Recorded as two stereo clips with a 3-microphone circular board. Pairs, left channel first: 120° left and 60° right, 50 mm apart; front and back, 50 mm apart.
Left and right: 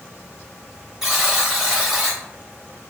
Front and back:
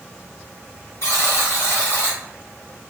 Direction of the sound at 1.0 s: 20° left.